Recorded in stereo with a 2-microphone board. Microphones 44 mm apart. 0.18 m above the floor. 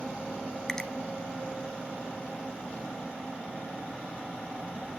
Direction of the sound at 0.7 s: 15° left (ahead or behind).